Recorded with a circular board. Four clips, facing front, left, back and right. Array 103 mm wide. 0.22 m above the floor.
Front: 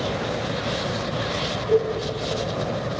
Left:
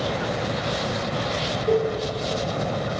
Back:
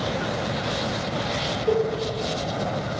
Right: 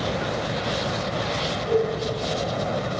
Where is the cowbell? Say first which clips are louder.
Left 1 dB, front 2 dB; 150° left, 4 m.